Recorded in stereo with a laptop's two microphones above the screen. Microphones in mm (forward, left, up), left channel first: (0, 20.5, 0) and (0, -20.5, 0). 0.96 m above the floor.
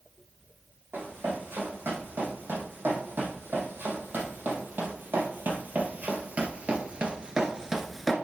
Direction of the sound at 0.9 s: 60° right (ahead or behind).